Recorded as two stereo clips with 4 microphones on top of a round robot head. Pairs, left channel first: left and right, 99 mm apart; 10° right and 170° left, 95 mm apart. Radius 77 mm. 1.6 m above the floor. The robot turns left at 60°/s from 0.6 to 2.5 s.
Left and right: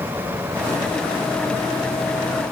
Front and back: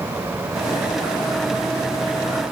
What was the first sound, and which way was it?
Only background noise.